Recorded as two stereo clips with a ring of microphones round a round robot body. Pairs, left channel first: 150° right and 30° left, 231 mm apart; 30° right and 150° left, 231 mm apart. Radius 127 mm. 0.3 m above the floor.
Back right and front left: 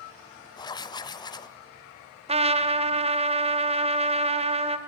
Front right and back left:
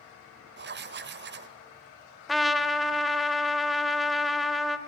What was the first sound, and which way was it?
Writing, 145° left.